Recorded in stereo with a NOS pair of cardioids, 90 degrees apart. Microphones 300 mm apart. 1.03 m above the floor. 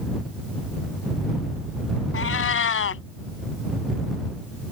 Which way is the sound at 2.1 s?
45° left.